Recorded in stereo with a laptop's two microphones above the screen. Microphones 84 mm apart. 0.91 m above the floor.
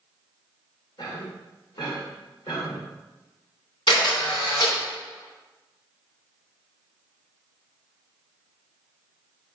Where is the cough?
60° left (ahead or behind), 2.5 m.